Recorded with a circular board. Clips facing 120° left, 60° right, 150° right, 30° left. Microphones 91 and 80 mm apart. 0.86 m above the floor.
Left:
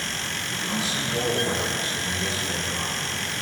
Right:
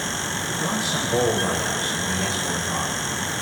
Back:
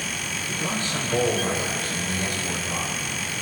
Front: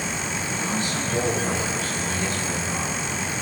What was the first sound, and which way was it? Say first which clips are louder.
A man speaking: right 3 dB, even; 95° right.